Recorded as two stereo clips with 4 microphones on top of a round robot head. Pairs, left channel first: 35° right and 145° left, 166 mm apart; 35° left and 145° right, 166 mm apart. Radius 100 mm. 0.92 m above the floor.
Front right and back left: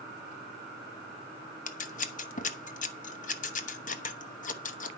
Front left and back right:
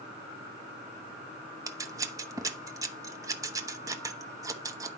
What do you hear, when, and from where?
1.7 s scissors: 75° right, 1.0 m